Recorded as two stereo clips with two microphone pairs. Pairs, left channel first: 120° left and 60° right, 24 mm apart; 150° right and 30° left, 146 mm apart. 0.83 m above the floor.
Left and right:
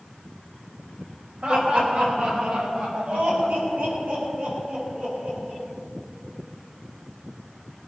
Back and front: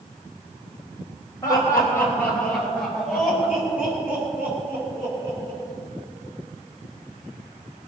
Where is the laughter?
85° right, 4 m; by 5.6 s 40° right, 8.5 m.